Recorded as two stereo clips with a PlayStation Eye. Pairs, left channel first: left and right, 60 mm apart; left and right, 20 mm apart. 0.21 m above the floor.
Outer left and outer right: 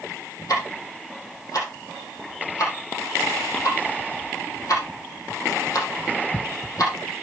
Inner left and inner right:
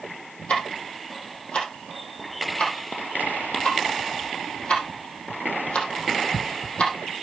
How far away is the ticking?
About 4.5 m.